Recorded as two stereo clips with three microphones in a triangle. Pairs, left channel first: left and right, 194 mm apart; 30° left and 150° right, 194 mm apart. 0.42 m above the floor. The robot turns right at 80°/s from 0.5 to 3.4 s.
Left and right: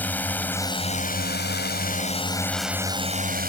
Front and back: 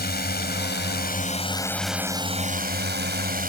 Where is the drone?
10° left; by 3.5 s 120° right.